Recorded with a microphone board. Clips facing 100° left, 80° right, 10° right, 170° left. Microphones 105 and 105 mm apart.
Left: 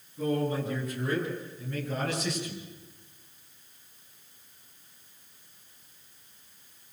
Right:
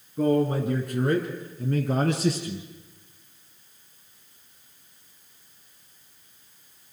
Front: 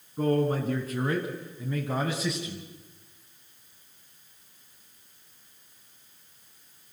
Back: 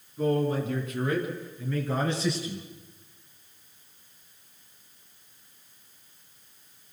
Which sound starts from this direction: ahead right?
A man speaking, at 0.2 s.